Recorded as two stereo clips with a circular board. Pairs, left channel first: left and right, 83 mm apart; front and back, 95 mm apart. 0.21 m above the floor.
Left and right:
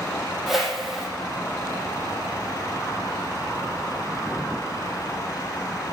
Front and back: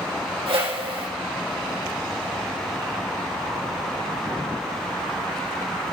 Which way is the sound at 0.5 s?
Straight behind.